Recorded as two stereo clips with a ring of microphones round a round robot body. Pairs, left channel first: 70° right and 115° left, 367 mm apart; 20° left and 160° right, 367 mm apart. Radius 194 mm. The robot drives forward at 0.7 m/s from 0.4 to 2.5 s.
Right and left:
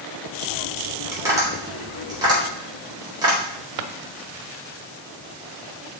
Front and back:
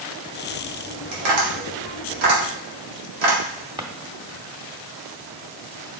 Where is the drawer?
120° left, 0.8 m.